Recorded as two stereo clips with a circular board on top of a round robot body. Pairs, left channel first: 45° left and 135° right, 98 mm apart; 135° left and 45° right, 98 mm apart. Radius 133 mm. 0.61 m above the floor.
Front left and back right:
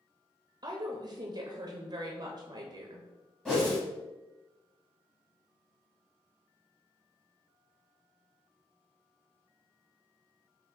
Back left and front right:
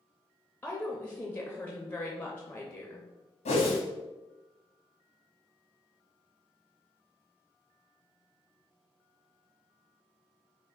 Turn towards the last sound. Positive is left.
turn(degrees=130)